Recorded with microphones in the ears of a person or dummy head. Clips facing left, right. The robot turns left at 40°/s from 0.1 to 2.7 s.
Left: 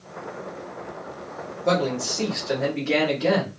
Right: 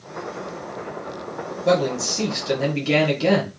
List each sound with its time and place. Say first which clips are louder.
1.6 s a man speaking: right 3 dB; 20° right, 1.3 m; by 3.5 s 60° right, 1.3 m